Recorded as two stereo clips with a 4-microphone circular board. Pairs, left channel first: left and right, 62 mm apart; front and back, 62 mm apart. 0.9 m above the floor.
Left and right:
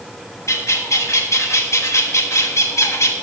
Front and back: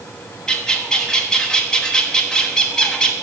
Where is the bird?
75° left, 1.4 m.